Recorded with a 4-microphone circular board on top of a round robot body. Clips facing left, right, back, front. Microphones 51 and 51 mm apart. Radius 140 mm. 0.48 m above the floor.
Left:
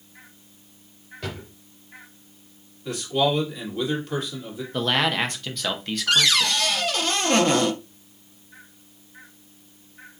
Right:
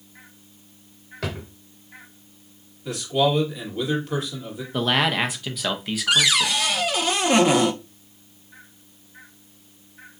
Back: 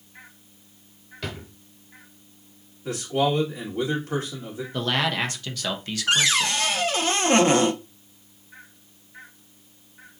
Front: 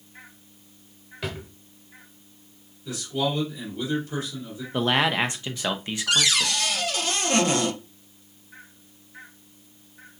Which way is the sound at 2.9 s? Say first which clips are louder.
Right 1 dB, back 4 dB; straight behind.